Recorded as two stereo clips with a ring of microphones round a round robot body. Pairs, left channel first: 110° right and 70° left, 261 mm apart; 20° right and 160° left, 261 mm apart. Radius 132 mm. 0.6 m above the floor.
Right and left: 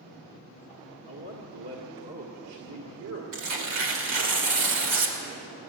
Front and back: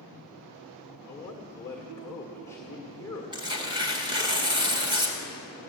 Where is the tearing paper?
85° left, 2 m.